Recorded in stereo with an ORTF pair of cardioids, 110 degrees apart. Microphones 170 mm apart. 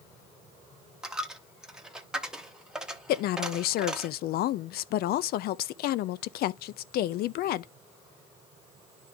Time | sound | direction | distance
1.0 | a dropped coin | 5° right | 1.0 m
3.1 | a woman speaking | 65° left | 0.5 m